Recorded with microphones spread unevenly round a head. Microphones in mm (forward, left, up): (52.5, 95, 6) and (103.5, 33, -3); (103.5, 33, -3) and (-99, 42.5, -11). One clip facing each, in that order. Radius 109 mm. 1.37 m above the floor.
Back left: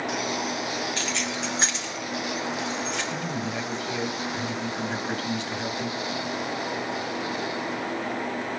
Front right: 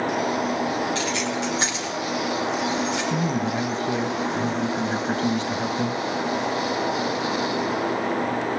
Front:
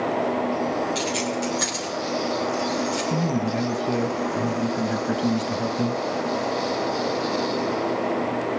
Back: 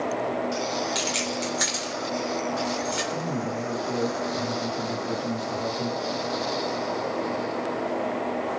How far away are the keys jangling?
About 2.5 m.